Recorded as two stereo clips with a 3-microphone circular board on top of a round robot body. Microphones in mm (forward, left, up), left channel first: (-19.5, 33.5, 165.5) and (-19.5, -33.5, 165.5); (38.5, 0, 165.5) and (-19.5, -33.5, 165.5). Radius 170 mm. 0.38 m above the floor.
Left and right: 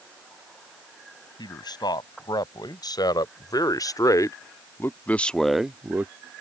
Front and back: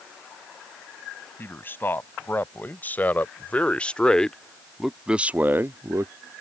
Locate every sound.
1.4 s a man speaking: 90° left; by 6.1 s 140° right